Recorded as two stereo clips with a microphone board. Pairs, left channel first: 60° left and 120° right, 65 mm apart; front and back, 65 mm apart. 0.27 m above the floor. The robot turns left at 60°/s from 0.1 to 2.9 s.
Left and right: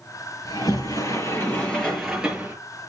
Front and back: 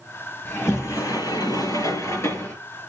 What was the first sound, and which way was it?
A sliding door, 65° left.